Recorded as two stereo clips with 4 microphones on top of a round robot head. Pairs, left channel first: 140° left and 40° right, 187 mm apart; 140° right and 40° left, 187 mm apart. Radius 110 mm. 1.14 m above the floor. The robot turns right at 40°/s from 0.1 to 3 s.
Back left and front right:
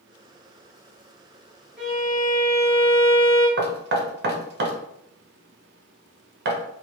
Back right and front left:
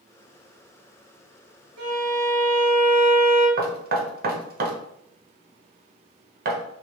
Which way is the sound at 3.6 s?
5° right.